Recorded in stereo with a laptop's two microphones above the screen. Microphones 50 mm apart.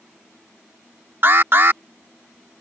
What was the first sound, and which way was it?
An alarm, 50° right (ahead or behind).